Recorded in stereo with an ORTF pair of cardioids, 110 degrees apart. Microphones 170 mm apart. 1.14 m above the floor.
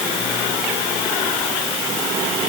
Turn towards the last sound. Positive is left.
No sound to turn to.